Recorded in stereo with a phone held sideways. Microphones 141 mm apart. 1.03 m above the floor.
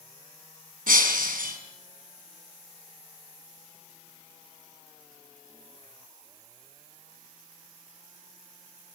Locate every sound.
0.9 s breaking glass: 75° right (ahead or behind), 4.5 m